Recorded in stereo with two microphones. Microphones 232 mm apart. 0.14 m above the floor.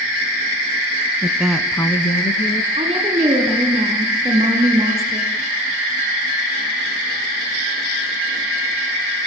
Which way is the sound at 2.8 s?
25° right (ahead or behind).